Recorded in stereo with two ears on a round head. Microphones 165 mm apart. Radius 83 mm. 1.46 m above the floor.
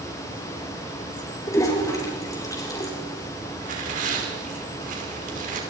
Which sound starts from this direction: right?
Tearing paper, at 3.6 s.